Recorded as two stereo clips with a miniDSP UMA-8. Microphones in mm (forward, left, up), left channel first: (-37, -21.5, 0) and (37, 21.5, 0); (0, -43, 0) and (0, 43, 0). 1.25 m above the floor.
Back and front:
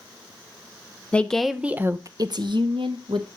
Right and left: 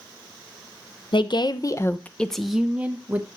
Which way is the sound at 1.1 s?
75° right.